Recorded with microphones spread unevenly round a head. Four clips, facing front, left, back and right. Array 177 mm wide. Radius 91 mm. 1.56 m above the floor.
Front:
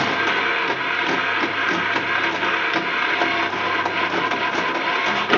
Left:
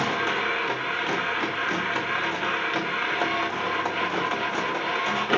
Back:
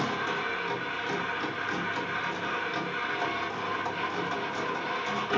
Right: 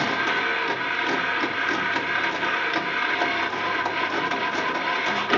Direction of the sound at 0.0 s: 5° left.